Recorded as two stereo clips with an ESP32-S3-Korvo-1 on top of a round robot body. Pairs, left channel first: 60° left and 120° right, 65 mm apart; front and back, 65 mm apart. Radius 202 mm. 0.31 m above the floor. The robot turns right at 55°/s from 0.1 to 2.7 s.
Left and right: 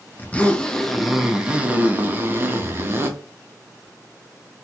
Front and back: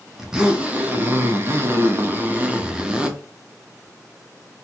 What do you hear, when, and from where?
0.2 s a zipper: 105° left, 0.9 m; by 3.1 s 120° right, 0.9 m